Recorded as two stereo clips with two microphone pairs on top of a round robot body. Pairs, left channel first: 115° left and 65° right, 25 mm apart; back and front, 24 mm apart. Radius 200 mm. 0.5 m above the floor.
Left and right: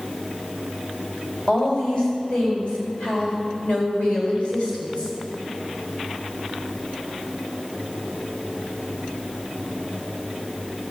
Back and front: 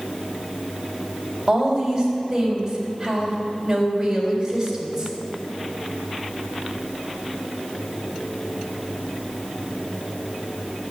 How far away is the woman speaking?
About 4 m.